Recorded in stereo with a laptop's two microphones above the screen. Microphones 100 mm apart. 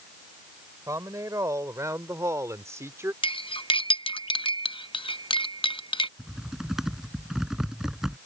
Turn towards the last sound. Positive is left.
turn(degrees=-5)  # may be behind; listen again after turning